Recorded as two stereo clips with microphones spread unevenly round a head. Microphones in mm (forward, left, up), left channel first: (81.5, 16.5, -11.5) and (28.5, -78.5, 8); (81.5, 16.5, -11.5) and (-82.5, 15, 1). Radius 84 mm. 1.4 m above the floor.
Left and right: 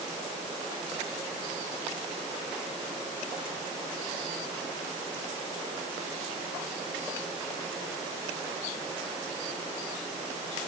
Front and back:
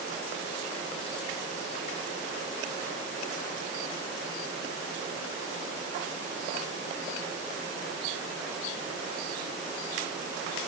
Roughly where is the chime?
No chime in this recording.